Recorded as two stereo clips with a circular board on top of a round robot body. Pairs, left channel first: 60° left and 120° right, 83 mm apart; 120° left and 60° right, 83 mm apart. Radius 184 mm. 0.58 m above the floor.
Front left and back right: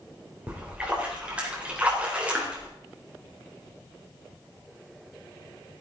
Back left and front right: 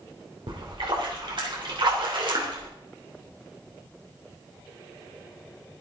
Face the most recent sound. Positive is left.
turn(degrees=-45)